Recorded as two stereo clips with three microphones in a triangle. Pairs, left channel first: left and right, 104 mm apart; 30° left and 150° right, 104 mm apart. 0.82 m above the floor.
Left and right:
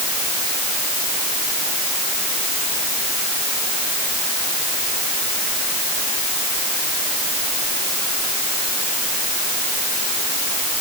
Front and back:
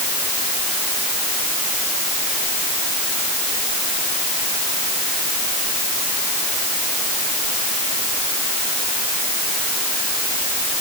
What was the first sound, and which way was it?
Only background noise.